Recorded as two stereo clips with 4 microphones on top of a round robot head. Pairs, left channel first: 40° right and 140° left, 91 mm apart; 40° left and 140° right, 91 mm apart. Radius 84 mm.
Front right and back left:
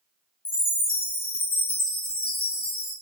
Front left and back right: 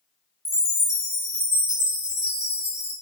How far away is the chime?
About 1.8 m.